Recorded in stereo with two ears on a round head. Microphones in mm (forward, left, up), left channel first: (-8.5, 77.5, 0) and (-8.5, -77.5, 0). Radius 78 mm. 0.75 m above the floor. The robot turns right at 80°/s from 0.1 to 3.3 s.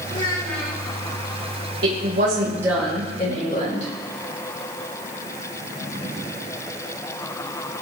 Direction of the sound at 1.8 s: 80° right.